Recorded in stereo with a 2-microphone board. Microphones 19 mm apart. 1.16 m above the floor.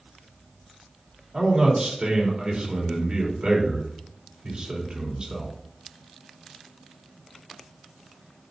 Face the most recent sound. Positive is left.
turn(degrees=-50)  # may be behind; listen again after turning